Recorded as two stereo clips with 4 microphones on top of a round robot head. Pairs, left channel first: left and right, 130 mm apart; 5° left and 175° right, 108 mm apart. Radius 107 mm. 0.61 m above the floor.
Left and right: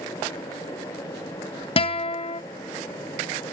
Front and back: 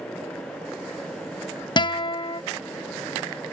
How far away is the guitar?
About 0.8 m.